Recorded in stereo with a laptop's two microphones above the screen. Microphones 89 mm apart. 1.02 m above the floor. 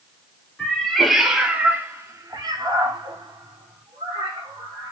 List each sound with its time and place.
0.6 s a cat meowing: 10° left (ahead or behind), 1.2 m; by 4.9 s 80° right, 1.9 m